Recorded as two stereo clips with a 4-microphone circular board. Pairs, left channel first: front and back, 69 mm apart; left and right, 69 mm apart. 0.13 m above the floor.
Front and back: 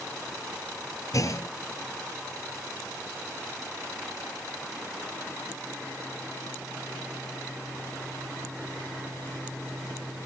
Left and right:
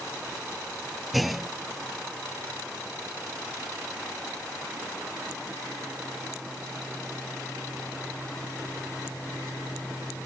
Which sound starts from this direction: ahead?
A clunk, at 1.1 s.